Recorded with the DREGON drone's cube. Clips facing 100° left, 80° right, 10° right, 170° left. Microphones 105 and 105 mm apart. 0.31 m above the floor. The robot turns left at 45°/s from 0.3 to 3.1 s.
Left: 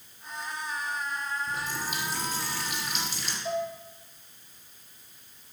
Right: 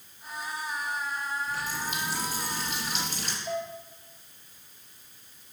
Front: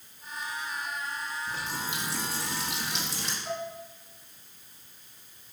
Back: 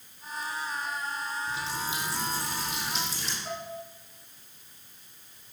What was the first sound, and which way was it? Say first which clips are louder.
A running tap: even, back 2 dB; 40° left.